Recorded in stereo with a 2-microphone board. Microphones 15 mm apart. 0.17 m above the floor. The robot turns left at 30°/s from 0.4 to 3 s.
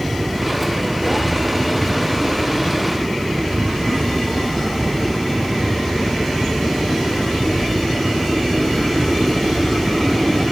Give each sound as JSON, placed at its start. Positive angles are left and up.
{"t": 0.0, "sound": "a helicopter", "side_deg": -65}